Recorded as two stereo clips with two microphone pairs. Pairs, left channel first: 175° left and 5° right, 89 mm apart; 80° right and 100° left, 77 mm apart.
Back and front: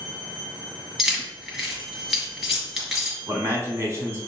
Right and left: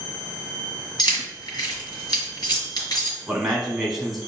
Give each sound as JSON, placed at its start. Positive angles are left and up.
{"t": 1.0, "sound": "keys jangling", "azimuth_deg": -85, "distance_m": 2.0}
{"t": 3.3, "sound": "a man speaking", "azimuth_deg": 15, "distance_m": 1.4}